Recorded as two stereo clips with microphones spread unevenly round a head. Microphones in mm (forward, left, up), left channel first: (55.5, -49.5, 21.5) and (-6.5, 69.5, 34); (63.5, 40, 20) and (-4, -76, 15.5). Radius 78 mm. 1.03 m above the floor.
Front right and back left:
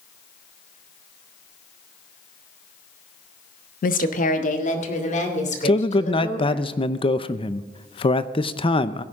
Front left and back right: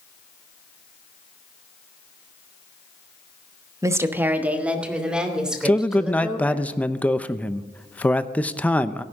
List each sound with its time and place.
3.8 s a woman speaking: 55° right, 0.9 m; by 6.6 s 30° right, 4 m
5.7 s a man speaking: 20° right, 0.7 m